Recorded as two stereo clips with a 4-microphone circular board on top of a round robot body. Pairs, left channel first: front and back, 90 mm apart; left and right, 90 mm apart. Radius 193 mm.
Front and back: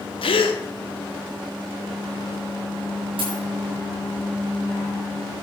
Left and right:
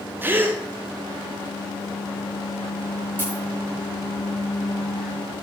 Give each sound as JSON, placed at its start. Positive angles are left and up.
{"t": 0.2, "sound": "a gasp", "azimuth_deg": -20, "distance_m": 1.1}
{"t": 3.2, "sound": "a dropped coin", "azimuth_deg": -160, "distance_m": 7.5}